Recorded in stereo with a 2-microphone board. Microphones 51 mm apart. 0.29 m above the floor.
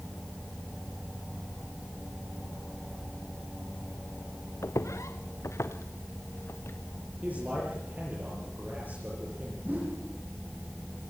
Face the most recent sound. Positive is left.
turn(degrees=-35)  # may be behind; listen again after turning